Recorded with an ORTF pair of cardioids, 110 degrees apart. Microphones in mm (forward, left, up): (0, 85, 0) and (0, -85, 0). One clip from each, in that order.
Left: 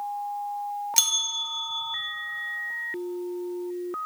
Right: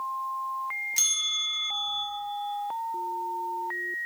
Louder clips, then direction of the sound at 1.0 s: Left 2 dB; 40° left.